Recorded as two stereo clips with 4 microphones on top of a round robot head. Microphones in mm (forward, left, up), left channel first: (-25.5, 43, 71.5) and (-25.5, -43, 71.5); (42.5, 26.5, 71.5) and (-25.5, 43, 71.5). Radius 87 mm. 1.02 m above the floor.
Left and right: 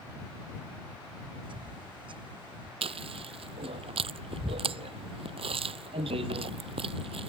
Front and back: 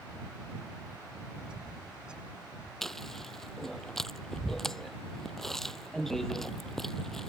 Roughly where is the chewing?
Right.